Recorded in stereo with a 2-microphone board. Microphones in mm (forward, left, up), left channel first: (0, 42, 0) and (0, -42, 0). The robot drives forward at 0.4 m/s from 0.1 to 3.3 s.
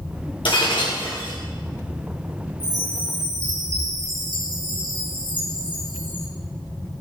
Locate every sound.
0.5 s breaking glass: 75° left (ahead or behind), 6 m; by 1.4 s 70° left (ahead or behind), 6 m
2.6 s a chime: 85° left, 5 m